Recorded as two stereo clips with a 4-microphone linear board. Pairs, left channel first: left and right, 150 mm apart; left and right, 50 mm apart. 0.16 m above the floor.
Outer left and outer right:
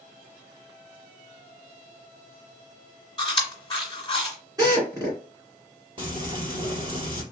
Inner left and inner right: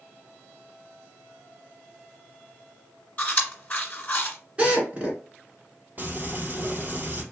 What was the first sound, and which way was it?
Chewing, 30° left (ahead or behind).